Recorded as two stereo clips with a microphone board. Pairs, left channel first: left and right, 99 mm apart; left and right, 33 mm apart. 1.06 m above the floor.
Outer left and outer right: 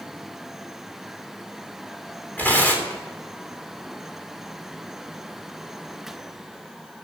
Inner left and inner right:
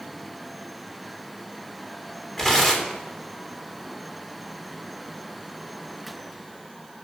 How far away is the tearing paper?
About 3 m.